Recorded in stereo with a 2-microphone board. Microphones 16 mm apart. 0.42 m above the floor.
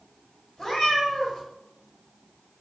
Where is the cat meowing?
40° left (ahead or behind), 0.9 m.